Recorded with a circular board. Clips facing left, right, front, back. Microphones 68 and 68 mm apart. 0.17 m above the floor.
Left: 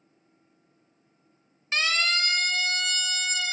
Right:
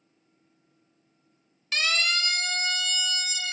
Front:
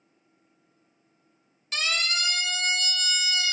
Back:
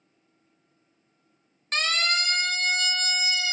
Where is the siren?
150° left, 2 m; by 3.5 s 120° left, 2.5 m.